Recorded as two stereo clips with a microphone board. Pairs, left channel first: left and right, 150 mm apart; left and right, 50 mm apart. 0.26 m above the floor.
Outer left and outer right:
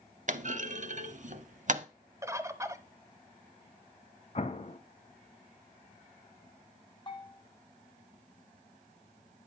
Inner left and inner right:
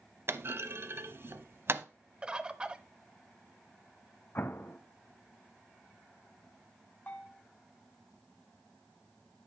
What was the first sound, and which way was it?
A clunk, 55° right (ahead or behind).